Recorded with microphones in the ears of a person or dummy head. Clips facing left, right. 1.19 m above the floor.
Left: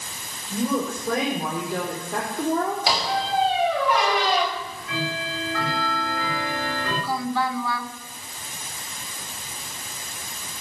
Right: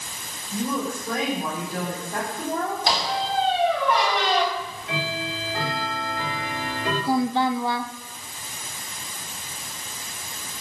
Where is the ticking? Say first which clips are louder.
Even; 20° right (ahead or behind), 4 m.